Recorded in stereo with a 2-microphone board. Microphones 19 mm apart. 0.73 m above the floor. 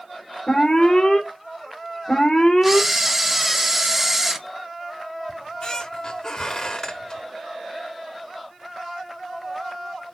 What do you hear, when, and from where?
0.5 s an alarm: 55° left (ahead or behind), 3.5 m
2.6 s a camera shutter: 10° right (ahead or behind), 1.0 m
5.3 s a squeak: 40° left (ahead or behind), 1.1 m